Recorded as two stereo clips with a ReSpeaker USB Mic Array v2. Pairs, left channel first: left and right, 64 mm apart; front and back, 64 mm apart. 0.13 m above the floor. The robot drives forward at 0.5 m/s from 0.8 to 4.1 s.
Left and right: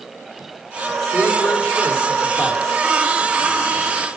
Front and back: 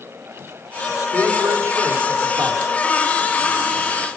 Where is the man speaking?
135° left, 5 m; by 2.6 s 140° left, 5.5 m.